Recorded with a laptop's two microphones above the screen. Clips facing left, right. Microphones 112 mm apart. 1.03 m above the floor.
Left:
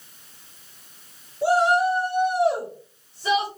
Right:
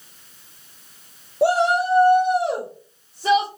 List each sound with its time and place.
1.4 s a shout: 70° right (ahead or behind), 0.6 m; by 3.5 s 45° right (ahead or behind), 1.8 m